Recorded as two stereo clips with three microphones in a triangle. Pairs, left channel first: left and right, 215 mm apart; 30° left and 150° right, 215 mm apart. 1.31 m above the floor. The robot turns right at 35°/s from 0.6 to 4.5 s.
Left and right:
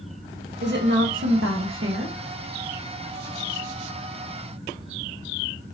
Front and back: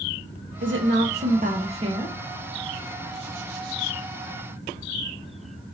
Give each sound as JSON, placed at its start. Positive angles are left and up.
{"t": 0.6, "sound": "a woman speaking", "azimuth_deg": -130, "distance_m": 0.9}